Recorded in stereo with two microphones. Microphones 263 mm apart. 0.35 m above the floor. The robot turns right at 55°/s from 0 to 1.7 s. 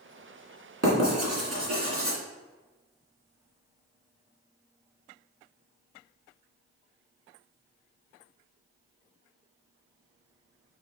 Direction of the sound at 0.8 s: 70° right (ahead or behind).